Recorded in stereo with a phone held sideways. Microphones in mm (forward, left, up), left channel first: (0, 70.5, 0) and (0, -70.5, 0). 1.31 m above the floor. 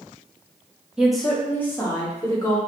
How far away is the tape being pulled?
No tape being pulled in this recording.